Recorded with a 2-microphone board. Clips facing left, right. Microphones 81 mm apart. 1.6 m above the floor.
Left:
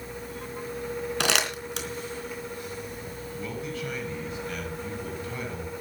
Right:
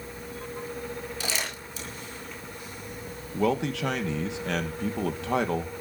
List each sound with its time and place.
1.2 s crumpling: 70° left (ahead or behind), 3.5 m
3.3 s a man speaking: 85° right, 2 m